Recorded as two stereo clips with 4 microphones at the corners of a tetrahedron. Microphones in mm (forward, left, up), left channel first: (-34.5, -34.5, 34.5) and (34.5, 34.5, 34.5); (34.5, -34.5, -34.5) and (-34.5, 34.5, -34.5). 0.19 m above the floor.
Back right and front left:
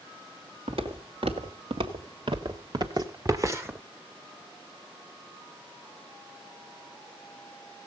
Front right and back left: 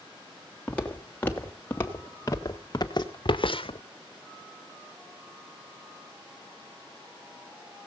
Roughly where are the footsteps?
Ahead left.